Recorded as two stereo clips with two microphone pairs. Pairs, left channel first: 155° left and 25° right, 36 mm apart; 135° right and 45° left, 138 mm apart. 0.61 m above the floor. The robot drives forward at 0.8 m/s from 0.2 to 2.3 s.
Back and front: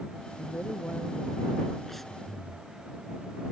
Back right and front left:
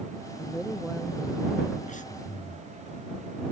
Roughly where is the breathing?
Behind right.